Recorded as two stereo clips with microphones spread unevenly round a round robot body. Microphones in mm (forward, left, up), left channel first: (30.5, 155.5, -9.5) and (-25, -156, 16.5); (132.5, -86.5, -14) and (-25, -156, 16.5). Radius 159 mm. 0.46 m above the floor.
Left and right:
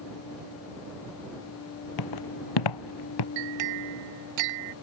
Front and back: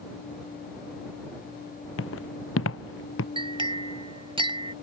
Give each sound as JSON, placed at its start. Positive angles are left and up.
{"t": 2.0, "sound": "footsteps", "azimuth_deg": 50}
{"t": 3.4, "sound": "a clink", "azimuth_deg": -95}